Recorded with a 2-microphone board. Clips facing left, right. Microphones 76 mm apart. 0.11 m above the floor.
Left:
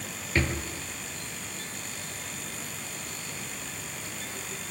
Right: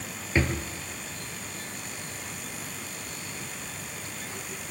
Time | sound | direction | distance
0.3 | a drawer | 15° right (ahead or behind) | 1.1 m